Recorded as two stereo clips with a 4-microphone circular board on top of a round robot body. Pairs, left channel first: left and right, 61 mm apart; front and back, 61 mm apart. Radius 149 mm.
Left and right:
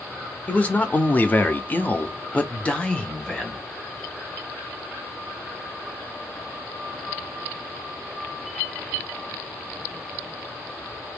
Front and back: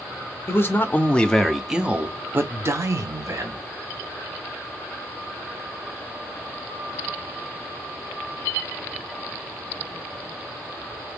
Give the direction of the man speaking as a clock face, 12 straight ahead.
11 o'clock.